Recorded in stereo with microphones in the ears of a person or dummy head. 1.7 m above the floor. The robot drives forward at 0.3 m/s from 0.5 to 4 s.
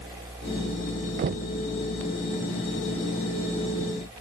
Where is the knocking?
50° right (ahead or behind); by 1.5 s 55° right (ahead or behind).